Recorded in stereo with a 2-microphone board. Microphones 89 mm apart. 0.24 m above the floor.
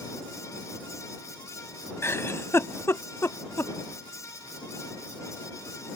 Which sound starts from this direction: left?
A giggle, at 2.0 s.